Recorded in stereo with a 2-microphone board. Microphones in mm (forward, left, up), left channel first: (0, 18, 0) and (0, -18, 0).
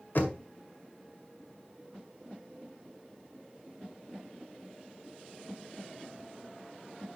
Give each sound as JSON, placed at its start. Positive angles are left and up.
{"t": 0.1, "sound": "knocking", "side_deg": 55, "distance_m": 1.7}